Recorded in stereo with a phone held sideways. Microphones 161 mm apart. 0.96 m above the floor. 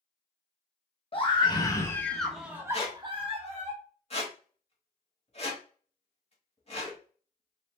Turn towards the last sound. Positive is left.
turn(degrees=40)  # may be behind; listen again after turning